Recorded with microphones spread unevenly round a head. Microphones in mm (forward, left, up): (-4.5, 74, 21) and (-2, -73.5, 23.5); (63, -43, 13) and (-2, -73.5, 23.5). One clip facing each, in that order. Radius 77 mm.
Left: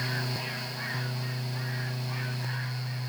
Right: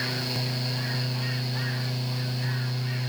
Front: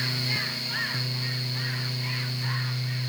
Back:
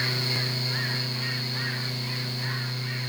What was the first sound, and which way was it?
Only background noise.